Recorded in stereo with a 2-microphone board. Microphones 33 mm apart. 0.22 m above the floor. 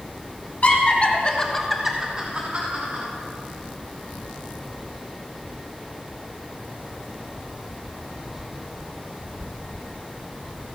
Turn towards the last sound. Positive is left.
turn(degrees=-45)  # may be behind; listen again after turning